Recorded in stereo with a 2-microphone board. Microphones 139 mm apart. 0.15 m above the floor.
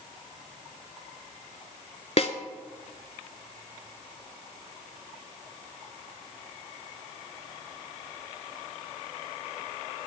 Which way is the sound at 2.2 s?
45° left (ahead or behind).